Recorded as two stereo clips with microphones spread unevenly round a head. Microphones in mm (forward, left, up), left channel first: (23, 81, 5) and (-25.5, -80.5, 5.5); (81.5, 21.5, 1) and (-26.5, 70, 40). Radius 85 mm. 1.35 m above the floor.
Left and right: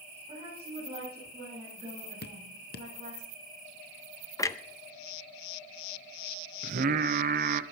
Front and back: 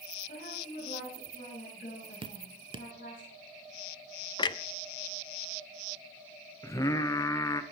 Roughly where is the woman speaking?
Ahead right.